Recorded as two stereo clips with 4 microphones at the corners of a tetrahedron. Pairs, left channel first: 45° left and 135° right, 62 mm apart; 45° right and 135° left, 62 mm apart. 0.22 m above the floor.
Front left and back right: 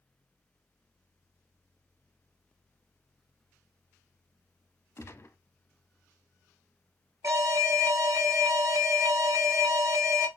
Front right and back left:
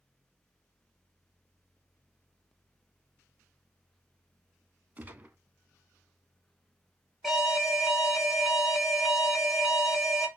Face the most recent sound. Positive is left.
turn(degrees=-145)